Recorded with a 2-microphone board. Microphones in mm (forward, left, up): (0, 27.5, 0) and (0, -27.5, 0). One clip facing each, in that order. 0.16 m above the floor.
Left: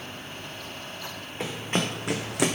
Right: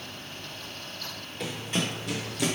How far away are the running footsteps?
About 0.9 m.